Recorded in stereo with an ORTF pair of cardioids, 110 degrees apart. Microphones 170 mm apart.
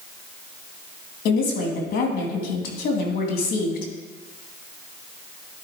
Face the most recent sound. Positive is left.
turn(degrees=70)